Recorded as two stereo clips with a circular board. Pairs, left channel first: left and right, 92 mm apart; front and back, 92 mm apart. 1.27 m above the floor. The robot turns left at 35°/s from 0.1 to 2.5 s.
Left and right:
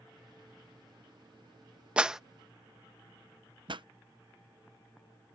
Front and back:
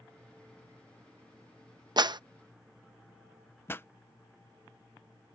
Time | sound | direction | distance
2.0 | a clap | 165° right | ?
3.7 | a pop | 65° right | ?